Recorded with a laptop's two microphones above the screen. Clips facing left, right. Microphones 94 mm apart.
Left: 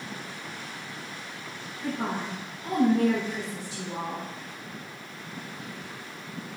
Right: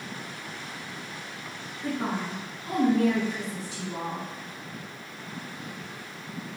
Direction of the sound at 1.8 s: 60° left (ahead or behind).